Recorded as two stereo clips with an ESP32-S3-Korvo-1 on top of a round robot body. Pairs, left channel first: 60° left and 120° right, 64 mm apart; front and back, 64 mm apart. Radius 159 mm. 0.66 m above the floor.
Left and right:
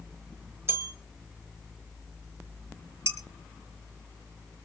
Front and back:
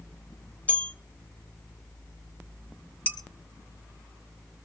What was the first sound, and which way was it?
A bell, 70° right.